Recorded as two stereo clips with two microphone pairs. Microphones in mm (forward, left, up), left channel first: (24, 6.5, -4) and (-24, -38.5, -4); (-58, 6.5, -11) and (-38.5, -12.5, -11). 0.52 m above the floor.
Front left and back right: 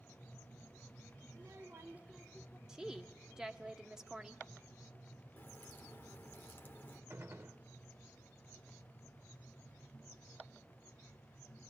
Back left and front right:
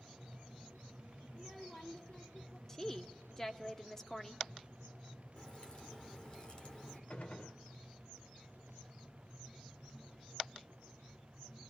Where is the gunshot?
170° left, 1.2 m.